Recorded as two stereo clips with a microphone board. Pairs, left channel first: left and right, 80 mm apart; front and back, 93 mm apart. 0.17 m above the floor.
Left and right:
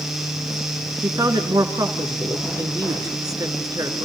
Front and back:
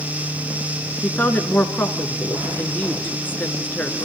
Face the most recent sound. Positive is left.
turn(degrees=-65)